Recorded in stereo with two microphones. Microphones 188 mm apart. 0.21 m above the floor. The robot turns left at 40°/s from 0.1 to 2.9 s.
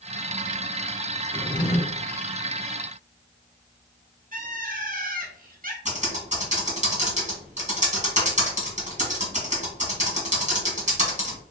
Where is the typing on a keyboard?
40° right (ahead or behind), 1.7 m.